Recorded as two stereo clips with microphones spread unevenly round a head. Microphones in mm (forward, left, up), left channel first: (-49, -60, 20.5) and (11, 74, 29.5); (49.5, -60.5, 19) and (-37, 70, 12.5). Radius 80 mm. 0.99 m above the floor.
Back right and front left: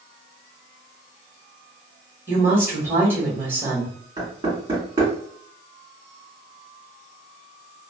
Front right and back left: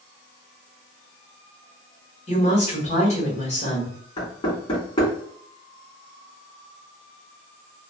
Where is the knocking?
5° left, 1.7 m.